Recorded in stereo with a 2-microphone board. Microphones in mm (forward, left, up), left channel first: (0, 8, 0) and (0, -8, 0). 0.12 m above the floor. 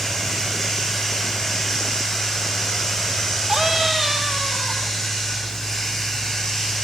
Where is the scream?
10° right (ahead or behind), 2.5 m.